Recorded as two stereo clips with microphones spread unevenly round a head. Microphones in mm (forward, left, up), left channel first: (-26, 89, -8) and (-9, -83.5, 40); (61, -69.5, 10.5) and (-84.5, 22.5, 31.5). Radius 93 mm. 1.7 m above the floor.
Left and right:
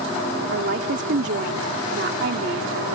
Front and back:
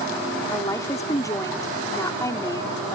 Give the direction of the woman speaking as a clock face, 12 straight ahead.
4 o'clock.